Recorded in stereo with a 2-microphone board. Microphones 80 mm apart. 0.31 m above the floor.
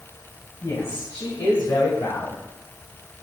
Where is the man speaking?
40° left (ahead or behind), 2 m; by 2.4 s 45° left (ahead or behind), 2 m.